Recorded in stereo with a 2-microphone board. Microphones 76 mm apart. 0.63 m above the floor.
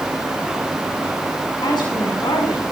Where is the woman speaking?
75° left (ahead or behind), 7 m.